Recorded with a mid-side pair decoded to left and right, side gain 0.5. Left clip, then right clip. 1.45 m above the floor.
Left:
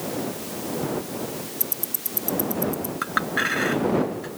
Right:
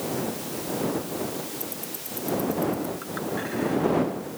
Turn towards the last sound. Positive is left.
turn(degrees=70)